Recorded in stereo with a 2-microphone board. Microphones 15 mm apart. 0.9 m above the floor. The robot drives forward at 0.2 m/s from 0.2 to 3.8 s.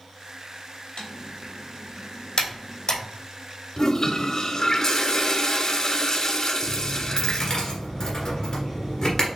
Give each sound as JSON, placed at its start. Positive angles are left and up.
{"t": 1.0, "sound": "typing on a keyboard", "side_deg": 55, "distance_m": 1.5}
{"t": 3.8, "sound": "a toilet flushing", "side_deg": 40, "distance_m": 0.6}
{"t": 6.6, "sound": "a dropped coin", "side_deg": 35, "distance_m": 1.7}